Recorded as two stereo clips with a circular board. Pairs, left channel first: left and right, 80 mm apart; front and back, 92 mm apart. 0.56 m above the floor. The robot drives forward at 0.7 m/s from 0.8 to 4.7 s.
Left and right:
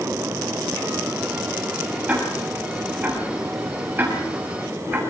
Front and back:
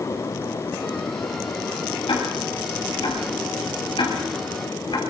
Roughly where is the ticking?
Ahead.